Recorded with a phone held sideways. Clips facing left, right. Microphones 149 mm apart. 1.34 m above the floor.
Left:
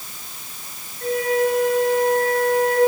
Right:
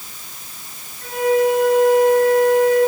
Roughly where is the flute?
Left.